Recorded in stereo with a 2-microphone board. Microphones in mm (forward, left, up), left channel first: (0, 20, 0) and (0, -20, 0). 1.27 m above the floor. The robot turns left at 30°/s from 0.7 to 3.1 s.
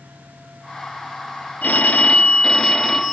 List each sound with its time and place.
1.6 s a phone ringing: 45° left, 0.8 m; by 3.1 s straight ahead, 0.8 m